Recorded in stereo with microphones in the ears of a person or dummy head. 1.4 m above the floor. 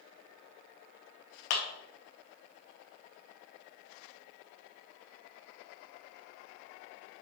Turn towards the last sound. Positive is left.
turn(degrees=55)  # may be behind; listen again after turning